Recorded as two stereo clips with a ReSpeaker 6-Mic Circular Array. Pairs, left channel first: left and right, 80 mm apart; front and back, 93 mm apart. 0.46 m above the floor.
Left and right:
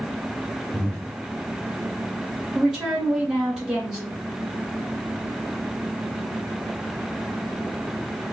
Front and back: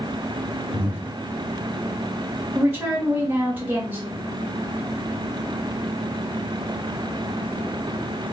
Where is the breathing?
120° right, 0.9 m.